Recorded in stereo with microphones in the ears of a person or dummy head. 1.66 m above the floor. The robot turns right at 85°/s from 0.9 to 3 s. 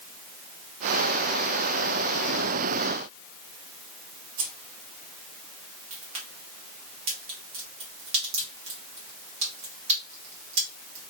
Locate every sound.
4.4 s keys jangling: 60° right (ahead or behind), 1.4 m
5.9 s a crack: 40° right (ahead or behind), 1.7 m